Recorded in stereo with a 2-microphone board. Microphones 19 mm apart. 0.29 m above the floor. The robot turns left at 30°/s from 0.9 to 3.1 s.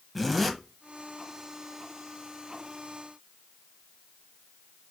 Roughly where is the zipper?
Centre.